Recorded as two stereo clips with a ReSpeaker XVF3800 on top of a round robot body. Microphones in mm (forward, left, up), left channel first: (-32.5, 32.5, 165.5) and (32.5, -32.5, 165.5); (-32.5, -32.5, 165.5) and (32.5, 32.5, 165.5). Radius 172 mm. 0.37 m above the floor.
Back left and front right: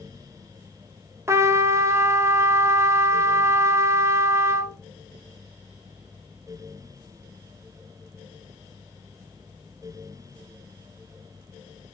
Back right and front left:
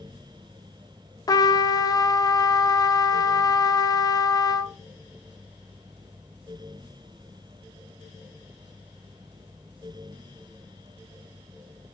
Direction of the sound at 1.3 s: 100° right.